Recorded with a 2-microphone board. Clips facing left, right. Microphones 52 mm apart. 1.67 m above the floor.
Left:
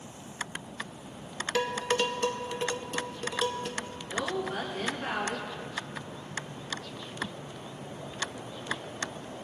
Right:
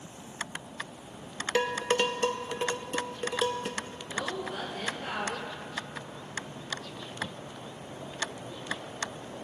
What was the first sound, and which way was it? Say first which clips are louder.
Dishes clattering: right 1 dB; 20° right (ahead or behind).